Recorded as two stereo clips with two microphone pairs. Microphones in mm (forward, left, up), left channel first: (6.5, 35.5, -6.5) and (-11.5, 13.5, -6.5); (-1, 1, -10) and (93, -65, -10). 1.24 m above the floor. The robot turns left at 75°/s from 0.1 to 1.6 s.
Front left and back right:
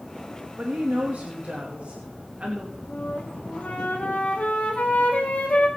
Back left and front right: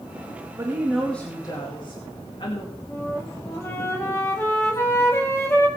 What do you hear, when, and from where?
0.6 s a woman speaking: 90° right, 2 m; by 2.7 s 165° right, 2 m
2.9 s a flute: 75° left, 2.5 m